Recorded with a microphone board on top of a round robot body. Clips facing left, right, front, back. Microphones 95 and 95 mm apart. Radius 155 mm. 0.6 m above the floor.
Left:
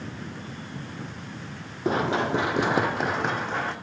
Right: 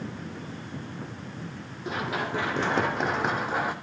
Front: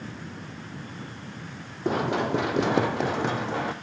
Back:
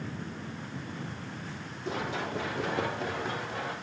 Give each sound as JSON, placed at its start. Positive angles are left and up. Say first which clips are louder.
{"t": 1.9, "sound": "running footsteps", "louder": "left 6 dB, front 9 dB", "azimuth_deg": 40, "distance_m": 1.3}